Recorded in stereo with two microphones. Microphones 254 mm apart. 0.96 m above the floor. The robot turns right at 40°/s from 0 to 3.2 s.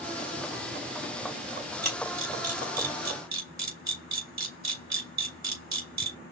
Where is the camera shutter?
40° right (ahead or behind), 3.5 m; by 6.2 s 90° right, 3.5 m.